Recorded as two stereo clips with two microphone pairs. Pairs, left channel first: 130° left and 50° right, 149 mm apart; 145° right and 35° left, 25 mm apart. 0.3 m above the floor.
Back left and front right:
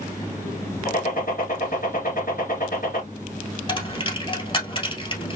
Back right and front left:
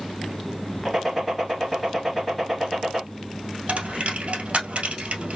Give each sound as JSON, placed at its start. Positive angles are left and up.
{"t": 0.8, "sound": "a gunshot", "azimuth_deg": 125, "distance_m": 2.5}
{"t": 3.7, "sound": "a dropped coin", "azimuth_deg": 75, "distance_m": 1.6}